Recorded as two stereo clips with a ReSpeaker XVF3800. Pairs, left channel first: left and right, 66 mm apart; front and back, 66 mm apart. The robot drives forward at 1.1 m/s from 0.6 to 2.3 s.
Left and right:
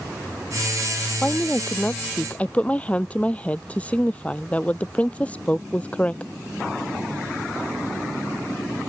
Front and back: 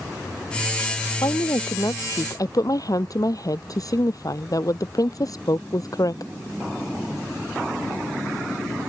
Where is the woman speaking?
15° left; by 6.3 s 25° left.